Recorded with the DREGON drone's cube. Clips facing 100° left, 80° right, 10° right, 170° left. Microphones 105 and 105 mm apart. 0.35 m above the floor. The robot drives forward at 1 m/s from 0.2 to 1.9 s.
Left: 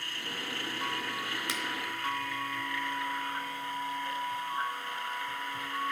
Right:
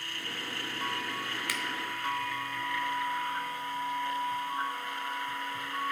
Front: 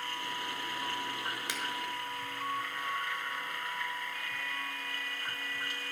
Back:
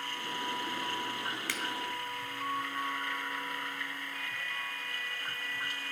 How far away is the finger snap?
About 1.1 m.